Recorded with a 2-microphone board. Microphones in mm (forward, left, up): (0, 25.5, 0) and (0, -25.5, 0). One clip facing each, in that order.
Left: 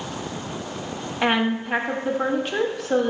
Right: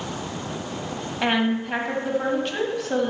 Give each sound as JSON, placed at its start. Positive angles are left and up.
{"t": 1.2, "sound": "a woman speaking", "side_deg": 10, "distance_m": 1.5}